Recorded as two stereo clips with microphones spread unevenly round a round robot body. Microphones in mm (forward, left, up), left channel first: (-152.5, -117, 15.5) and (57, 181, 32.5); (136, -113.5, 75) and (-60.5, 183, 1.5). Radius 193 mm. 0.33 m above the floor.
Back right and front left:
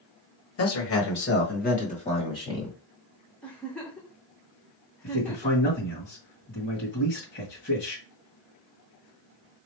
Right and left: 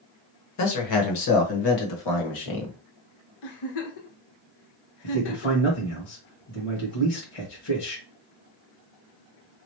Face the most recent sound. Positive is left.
turn(degrees=-70)